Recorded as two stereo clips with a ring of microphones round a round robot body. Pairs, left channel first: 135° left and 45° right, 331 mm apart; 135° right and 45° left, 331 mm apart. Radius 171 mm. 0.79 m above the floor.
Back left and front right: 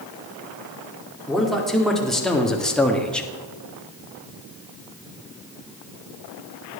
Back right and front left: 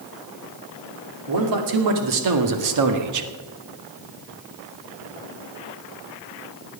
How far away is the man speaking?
About 2.5 m.